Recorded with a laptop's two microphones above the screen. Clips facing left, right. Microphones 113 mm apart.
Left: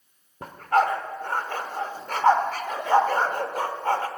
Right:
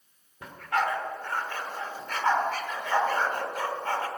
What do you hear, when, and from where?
0.4 s a dog barking: 40° left (ahead or behind), 1.3 m